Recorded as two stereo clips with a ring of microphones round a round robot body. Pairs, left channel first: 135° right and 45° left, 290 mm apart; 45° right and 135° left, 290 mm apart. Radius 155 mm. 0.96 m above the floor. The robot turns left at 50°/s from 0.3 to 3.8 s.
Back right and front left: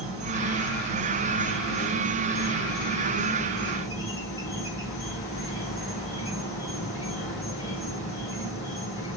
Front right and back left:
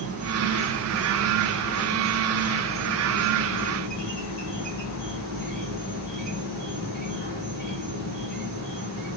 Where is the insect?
75° left, 2 m; by 9.2 s 100° right, 2 m.